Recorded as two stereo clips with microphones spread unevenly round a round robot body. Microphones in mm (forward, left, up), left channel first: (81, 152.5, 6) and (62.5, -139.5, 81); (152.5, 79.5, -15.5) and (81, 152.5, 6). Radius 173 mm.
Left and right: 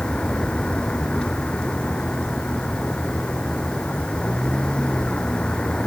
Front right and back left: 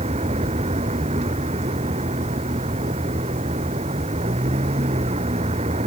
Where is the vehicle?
175° left.